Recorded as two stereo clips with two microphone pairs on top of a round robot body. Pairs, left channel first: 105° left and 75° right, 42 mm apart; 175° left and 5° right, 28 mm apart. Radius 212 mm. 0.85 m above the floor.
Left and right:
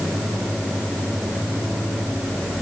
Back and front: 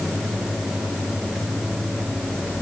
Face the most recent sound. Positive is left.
No sound to turn to.